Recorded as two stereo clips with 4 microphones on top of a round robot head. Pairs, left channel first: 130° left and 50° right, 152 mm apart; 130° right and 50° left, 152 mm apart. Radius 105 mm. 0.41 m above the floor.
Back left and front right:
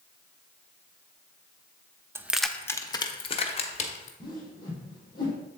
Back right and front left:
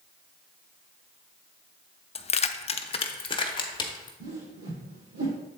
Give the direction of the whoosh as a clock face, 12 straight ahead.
10 o'clock.